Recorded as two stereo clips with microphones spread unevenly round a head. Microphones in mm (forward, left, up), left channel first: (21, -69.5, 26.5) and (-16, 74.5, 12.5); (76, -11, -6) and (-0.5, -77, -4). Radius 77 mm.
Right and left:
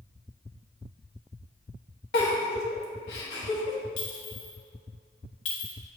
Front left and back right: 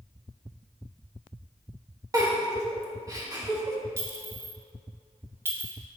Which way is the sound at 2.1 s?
85° right.